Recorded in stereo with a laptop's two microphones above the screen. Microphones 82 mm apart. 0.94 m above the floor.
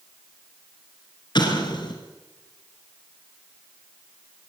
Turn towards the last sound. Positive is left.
turn(degrees=60)  # may be behind; listen again after turning